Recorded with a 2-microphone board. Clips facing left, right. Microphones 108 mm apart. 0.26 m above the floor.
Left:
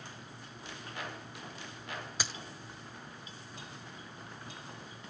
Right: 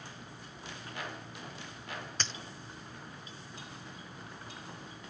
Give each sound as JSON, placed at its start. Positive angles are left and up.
{"t": 2.2, "sound": "a dropped coin", "side_deg": 10, "distance_m": 0.5}